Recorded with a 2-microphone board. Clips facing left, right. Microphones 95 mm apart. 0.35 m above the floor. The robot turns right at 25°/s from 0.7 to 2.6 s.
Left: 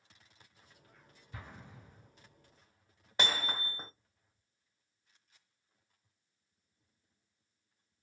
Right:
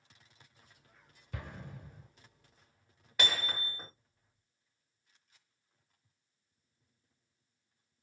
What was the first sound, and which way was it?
An explosion, 70° right (ahead or behind).